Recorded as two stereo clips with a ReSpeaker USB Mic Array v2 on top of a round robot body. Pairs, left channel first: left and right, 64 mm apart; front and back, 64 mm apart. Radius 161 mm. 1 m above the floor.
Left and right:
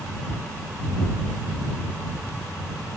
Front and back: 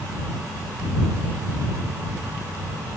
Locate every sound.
Only background noise.